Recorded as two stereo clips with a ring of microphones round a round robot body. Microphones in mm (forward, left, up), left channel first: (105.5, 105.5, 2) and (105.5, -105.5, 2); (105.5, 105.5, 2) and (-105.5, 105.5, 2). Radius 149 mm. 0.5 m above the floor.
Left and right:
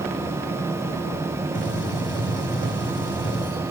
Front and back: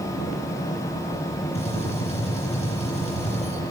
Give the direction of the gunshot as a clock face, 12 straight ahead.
10 o'clock.